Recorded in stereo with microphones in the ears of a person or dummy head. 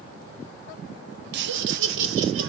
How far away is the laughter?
About 1.3 m.